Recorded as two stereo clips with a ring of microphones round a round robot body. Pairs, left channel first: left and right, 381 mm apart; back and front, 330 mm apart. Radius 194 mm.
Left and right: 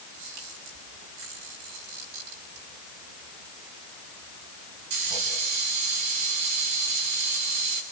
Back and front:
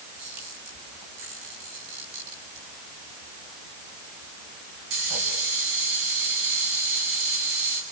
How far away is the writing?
I don't hear writing.